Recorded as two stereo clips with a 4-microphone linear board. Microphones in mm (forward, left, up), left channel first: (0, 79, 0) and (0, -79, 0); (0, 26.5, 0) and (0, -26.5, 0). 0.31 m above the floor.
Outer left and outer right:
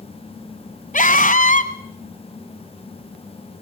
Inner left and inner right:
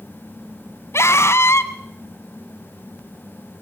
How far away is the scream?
About 1.9 m.